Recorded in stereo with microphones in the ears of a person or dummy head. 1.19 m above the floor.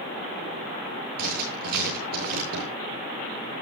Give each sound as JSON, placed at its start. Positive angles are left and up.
{"t": 1.2, "sound": "writing", "side_deg": -50, "distance_m": 9.0}